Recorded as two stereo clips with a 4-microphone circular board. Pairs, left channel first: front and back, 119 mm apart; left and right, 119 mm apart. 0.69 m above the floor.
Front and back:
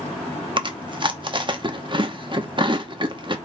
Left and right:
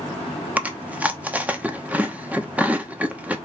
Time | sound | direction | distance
0.6 | chewing | 160° right | 0.9 m